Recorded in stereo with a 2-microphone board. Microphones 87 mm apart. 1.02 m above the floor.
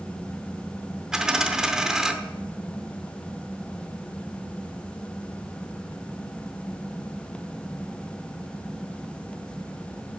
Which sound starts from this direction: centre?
A dropped coin, at 1.1 s.